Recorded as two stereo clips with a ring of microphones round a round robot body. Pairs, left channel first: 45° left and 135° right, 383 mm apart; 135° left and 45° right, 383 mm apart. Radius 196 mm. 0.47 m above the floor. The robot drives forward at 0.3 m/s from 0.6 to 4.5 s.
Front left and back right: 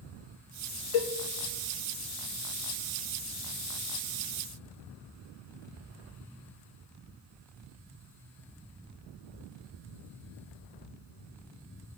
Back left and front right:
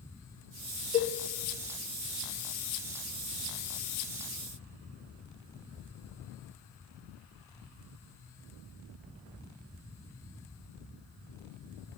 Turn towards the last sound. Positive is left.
turn(degrees=150)